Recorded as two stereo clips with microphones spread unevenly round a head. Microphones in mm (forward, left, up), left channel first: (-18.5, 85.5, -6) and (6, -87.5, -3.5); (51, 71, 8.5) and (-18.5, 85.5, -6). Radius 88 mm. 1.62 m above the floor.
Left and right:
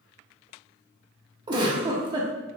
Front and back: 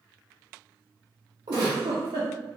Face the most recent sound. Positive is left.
turn(degrees=-145)